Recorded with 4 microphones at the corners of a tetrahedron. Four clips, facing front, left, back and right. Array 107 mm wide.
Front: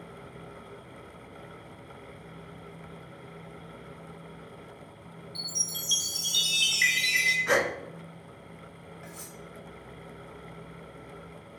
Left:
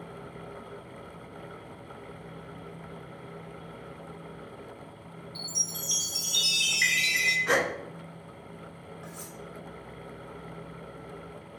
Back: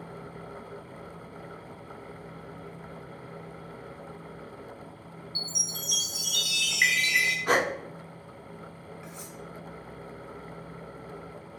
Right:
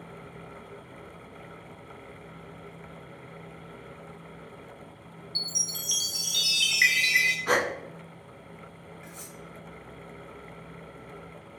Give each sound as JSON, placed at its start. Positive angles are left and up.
{"t": 5.3, "sound": "a chime", "azimuth_deg": -65, "distance_m": 1.2}
{"t": 7.5, "sound": "a gasp", "azimuth_deg": -135, "distance_m": 0.6}
{"t": 9.0, "sound": "cutlery clinking", "azimuth_deg": 40, "distance_m": 2.0}